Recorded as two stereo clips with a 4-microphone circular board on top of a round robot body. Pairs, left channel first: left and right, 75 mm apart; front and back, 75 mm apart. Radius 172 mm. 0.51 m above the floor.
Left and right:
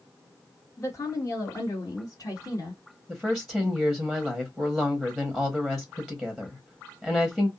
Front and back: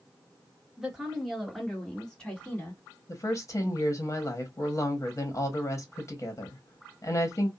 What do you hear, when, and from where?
0.8 s a woman speaking: 105° left, 1.6 m; by 2.8 s 70° left, 2 m
3.1 s a woman speaking: 5° left, 1.3 m